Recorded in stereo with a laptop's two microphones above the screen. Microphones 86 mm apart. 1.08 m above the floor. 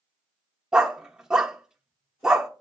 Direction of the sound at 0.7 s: 5° right (ahead or behind).